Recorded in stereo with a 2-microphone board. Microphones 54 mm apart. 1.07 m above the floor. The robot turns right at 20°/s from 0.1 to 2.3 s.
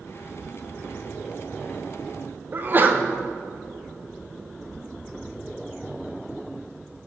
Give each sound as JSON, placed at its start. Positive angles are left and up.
{"t": 2.5, "sound": "a sneeze", "side_deg": -35, "distance_m": 0.8}